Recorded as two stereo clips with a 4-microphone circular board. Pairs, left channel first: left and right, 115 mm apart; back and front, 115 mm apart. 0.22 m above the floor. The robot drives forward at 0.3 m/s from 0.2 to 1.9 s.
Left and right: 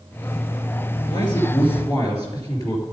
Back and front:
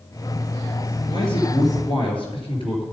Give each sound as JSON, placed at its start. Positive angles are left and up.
{"t": 1.1, "sound": "a man speaking", "azimuth_deg": 140, "distance_m": 3.5}